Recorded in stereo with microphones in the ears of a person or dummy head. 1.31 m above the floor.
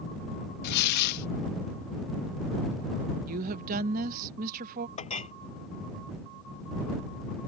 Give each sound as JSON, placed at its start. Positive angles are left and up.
{"t": 0.6, "sound": "tearing paper", "side_deg": 55}
{"t": 3.3, "sound": "a woman speaking", "side_deg": -40}
{"t": 5.0, "sound": "a clink", "side_deg": 35}